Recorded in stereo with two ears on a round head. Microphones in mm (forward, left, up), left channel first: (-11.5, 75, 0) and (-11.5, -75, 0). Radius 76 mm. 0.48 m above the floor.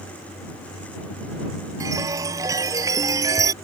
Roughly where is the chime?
Centre.